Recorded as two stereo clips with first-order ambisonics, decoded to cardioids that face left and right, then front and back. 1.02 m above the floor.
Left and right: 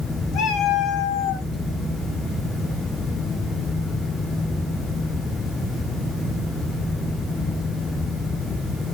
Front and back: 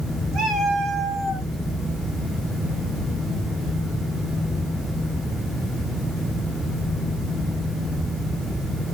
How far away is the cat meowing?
About 1.3 m.